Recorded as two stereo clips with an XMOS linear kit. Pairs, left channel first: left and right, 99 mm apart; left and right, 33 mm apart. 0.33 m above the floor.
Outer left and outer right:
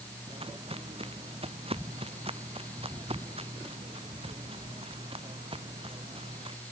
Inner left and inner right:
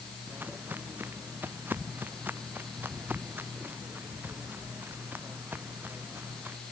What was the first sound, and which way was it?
Footsteps, 80° right.